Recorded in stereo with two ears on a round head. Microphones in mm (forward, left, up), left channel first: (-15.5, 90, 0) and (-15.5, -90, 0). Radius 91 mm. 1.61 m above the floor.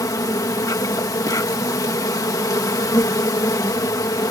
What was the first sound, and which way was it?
An insect, 15° left (ahead or behind).